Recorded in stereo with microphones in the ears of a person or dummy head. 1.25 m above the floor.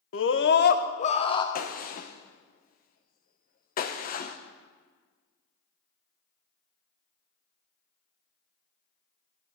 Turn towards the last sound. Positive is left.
turn(degrees=45)  # may be behind; listen again after turning